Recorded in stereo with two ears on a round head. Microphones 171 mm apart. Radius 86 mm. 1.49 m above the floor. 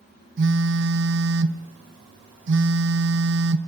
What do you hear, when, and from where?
0.4 s a phone buzzing: 65° right (ahead or behind), 0.7 m